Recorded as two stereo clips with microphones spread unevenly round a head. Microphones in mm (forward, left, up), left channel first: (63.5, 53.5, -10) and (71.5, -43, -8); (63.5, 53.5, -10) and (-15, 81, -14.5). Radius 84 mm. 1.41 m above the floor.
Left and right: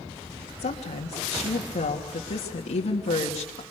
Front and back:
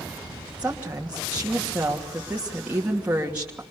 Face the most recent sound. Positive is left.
turn(degrees=90)